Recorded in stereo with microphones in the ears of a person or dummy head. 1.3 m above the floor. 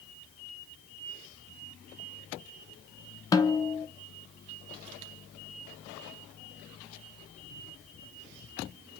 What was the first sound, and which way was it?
A snare drum, 20° left (ahead or behind).